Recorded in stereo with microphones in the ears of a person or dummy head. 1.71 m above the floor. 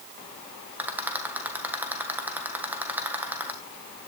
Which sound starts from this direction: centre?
A rattle, at 0.8 s.